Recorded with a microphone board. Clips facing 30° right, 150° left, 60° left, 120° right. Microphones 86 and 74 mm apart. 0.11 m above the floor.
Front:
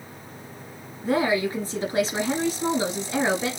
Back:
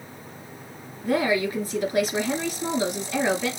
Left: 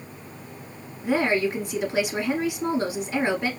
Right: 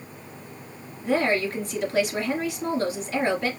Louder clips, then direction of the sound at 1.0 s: Even, left 1 dB; straight ahead.